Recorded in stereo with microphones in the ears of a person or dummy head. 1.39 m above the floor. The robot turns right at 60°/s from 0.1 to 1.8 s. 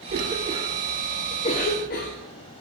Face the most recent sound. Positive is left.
turn(degrees=55)  # may be behind; listen again after turning